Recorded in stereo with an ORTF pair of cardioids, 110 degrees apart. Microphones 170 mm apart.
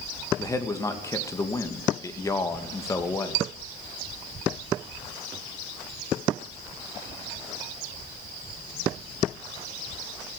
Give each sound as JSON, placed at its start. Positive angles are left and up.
{"t": 0.4, "sound": "a man speaking", "azimuth_deg": 20, "distance_m": 2.5}